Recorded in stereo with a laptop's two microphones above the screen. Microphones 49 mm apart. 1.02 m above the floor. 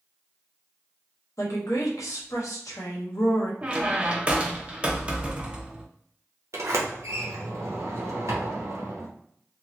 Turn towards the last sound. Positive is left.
turn(degrees=-65)  # may be behind; listen again after turning